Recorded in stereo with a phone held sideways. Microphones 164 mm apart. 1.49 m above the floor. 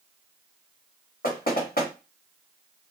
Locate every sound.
1.2 s knocking: 70° left (ahead or behind), 1.8 m